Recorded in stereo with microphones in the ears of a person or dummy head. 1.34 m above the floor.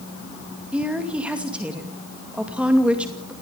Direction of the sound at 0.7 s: 5° right (ahead or behind).